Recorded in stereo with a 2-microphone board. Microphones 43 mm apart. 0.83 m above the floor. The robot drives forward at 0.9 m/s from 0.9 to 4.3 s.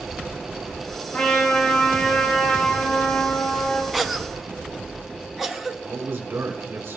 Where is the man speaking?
55° right (ahead or behind), 2.5 m.